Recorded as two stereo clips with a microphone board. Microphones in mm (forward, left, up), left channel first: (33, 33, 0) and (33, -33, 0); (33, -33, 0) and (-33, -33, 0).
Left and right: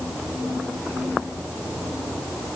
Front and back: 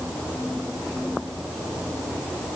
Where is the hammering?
No hammering in this recording.